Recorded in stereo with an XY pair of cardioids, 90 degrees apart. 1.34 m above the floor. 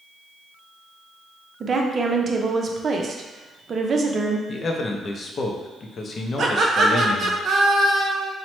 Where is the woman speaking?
45° right, 0.5 m.